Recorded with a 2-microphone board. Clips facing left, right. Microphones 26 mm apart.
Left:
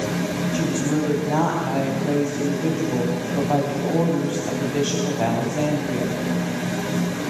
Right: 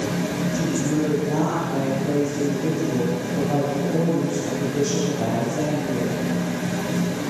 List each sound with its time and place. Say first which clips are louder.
0.5 s a woman speaking: left 1 dB; 75° left (ahead or behind), 4 m